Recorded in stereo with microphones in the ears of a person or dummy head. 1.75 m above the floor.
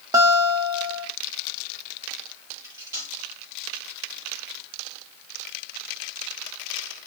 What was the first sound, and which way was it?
A guitar, 25° right (ahead or behind).